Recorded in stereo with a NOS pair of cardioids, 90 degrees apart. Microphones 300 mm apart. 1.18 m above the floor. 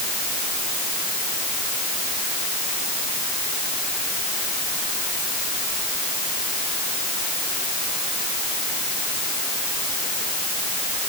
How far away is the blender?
I don't hear a blender.